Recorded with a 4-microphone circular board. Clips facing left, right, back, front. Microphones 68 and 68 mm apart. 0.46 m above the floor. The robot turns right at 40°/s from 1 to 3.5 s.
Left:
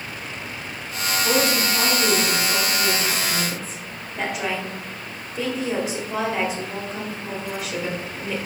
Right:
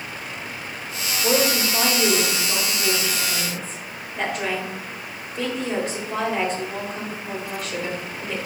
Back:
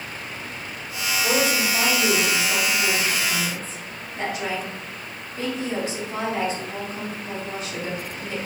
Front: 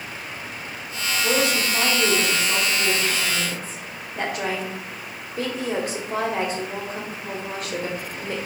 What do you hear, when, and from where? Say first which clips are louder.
1.2 s a woman speaking: right 1 dB, even; 85° right, 1.4 m; by 8.4 s 5° left, 1.4 m